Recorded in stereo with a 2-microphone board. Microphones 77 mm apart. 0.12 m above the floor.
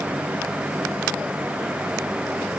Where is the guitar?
No guitar in this recording.